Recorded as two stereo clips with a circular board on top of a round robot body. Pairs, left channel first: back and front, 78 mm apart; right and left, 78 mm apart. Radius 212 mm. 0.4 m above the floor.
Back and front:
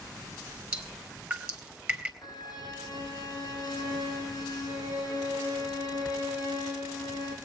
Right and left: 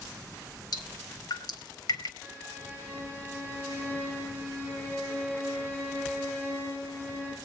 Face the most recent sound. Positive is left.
turn(degrees=-155)